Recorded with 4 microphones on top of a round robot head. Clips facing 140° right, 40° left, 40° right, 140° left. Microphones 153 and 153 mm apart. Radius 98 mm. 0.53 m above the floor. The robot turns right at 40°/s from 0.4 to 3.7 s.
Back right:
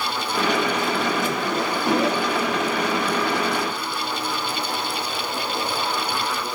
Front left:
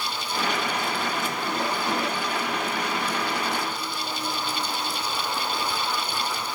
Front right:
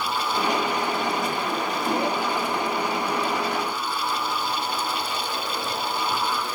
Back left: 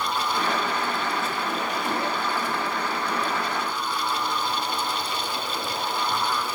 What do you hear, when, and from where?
Only background noise.